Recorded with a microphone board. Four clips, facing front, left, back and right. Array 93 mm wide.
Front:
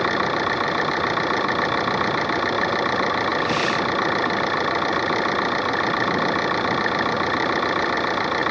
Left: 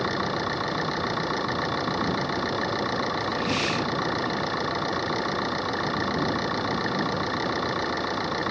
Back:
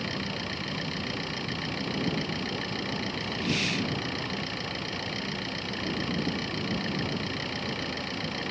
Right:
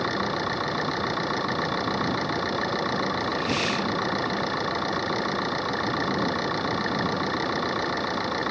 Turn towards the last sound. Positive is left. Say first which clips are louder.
# even, front 13 dB
turn(degrees=0)